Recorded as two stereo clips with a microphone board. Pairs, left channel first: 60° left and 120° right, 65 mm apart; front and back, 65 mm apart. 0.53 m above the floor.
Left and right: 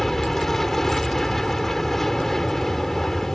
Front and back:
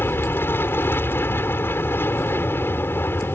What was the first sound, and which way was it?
An aircraft, 20° right.